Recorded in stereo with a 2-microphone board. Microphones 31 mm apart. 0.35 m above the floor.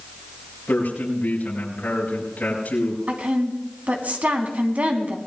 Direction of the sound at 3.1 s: 60° right (ahead or behind).